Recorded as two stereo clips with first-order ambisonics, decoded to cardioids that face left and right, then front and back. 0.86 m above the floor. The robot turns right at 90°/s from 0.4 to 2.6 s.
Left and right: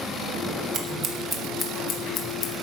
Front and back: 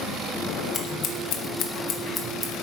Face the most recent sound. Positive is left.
turn(degrees=95)